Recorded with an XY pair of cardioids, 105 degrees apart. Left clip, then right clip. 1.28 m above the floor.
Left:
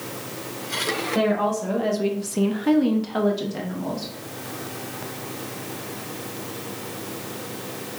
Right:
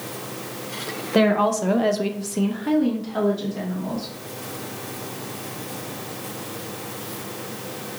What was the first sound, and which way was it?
A woman speaking, 70° right.